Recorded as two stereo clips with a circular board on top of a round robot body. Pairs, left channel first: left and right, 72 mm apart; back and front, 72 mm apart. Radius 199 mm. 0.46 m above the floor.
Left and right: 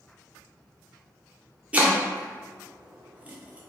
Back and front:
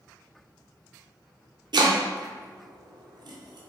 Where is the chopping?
20° right, 0.6 m.